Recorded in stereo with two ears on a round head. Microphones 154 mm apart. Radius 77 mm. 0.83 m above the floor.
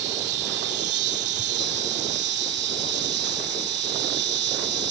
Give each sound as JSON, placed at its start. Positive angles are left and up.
{"t": 0.0, "sound": "an insect", "side_deg": -65}